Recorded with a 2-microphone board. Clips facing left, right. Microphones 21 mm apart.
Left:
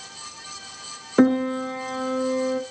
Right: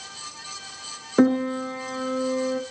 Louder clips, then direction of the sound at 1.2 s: Left 1 dB; 15° left (ahead or behind).